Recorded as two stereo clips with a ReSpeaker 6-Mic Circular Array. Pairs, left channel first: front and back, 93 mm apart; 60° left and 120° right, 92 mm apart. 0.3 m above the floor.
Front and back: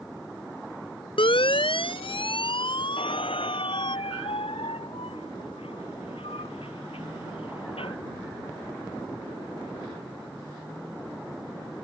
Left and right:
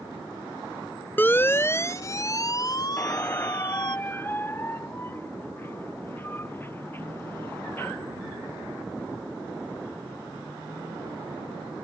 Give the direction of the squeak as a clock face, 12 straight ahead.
12 o'clock.